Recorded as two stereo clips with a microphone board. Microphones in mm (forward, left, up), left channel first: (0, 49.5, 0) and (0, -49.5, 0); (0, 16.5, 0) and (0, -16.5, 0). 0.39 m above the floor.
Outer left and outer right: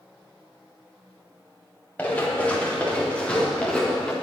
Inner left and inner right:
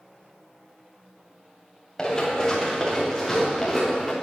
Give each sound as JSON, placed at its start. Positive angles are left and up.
{"t": 2.0, "sound": "running footsteps", "side_deg": 15, "distance_m": 5.5}